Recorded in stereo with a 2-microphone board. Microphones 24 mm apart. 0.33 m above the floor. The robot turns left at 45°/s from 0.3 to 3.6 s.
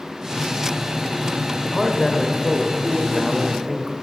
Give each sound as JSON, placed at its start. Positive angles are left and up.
{"t": 1.6, "sound": "a man speaking", "side_deg": 10, "distance_m": 0.8}